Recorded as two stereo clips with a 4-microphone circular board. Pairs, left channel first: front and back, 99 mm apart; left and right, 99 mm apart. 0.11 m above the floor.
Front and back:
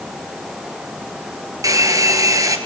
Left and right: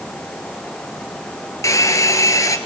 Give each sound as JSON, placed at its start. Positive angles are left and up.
{"t": 1.6, "sound": "a hair dryer", "azimuth_deg": 135, "distance_m": 1.3}